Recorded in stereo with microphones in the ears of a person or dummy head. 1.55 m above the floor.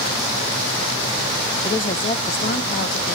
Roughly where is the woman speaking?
Left.